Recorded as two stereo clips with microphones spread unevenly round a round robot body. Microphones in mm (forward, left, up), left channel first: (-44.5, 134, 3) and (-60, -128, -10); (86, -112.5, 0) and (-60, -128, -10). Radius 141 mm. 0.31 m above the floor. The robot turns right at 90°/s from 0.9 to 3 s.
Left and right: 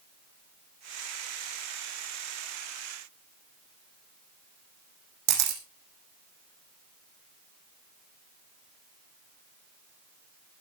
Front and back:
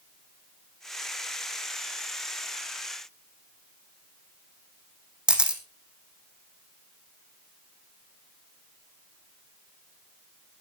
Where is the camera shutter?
90° right, 3.5 m.